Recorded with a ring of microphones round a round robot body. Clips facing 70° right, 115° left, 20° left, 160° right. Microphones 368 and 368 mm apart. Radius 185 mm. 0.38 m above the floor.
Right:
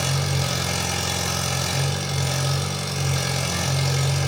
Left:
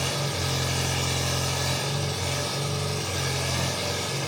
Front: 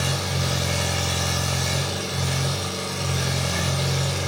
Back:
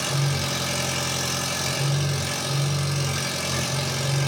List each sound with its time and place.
0.0 s an engine running: 145° right, 1.3 m